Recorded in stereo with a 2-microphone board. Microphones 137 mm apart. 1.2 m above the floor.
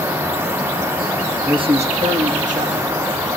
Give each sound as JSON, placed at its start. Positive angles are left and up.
{"t": 1.5, "sound": "a man speaking", "side_deg": -30, "distance_m": 1.2}